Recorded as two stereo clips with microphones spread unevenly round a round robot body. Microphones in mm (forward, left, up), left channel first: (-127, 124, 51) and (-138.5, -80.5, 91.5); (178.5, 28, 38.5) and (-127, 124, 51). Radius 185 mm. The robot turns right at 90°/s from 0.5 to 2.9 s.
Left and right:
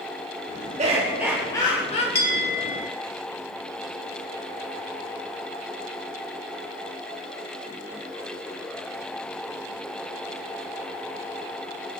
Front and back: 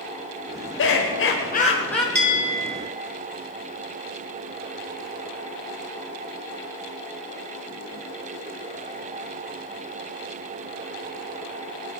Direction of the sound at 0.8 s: 40° right.